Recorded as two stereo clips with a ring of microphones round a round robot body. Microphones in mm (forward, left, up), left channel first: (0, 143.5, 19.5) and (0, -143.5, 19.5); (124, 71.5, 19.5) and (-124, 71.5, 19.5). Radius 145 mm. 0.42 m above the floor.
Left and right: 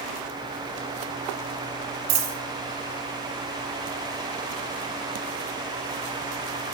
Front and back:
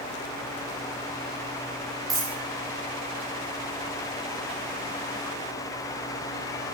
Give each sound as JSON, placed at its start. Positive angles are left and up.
{"t": 2.1, "sound": "a dropped coin", "azimuth_deg": -100, "distance_m": 2.5}